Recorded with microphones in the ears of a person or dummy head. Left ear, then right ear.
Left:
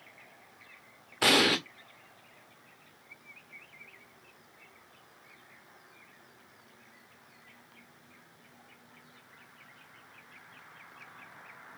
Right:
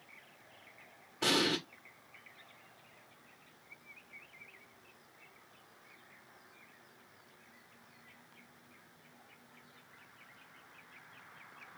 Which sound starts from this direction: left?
An explosion, at 1.2 s.